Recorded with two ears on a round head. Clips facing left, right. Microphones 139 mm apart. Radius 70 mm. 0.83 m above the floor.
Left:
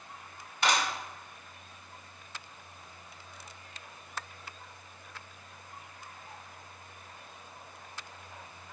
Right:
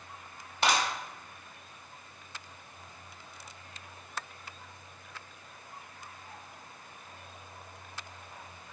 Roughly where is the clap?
Right.